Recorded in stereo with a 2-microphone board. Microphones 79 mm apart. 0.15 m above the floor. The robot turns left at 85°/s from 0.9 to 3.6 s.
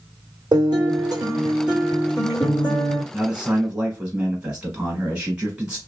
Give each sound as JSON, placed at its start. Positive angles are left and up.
{"t": 0.5, "sound": "a guitar", "azimuth_deg": -105, "distance_m": 1.7}
{"t": 3.1, "sound": "a man speaking", "side_deg": -5, "distance_m": 1.0}